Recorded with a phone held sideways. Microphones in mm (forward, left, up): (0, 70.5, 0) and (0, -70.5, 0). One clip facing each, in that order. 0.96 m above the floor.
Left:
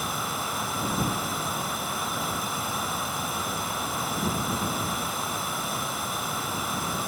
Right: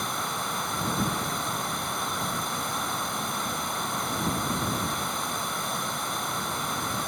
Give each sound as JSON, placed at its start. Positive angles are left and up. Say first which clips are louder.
{"t": 0.0, "sound": "running water", "louder": "even", "side_deg": 5}